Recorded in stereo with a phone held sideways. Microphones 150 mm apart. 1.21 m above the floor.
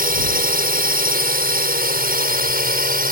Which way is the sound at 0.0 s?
75° right (ahead or behind).